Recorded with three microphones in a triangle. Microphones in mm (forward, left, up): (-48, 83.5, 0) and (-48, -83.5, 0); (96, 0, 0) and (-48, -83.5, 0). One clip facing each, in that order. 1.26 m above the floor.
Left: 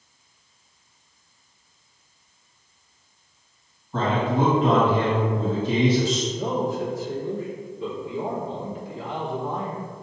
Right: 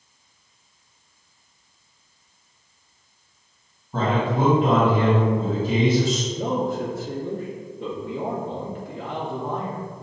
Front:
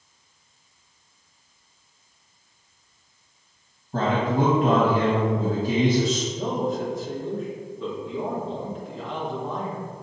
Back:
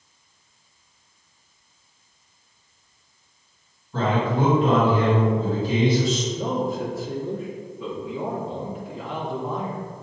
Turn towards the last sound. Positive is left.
turn(degrees=-65)